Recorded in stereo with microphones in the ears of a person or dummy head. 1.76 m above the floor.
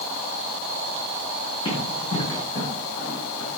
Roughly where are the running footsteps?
Left.